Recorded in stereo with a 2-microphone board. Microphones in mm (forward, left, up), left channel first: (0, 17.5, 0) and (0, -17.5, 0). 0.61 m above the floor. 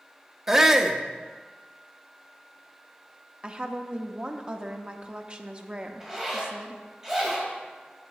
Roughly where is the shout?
Centre.